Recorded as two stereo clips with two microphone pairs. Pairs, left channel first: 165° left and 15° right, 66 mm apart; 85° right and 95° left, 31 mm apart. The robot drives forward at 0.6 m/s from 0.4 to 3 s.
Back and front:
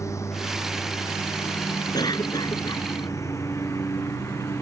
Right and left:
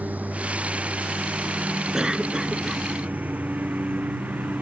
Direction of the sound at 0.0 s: 125° left.